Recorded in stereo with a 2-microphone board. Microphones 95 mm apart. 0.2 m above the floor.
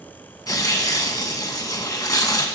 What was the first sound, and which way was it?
Tearing paper, 40° left (ahead or behind).